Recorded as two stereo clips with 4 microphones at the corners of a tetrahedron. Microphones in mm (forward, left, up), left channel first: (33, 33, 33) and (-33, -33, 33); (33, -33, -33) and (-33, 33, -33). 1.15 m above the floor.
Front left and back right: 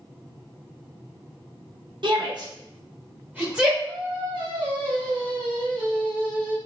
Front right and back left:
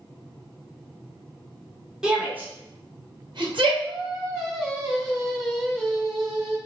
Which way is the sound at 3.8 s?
130° right.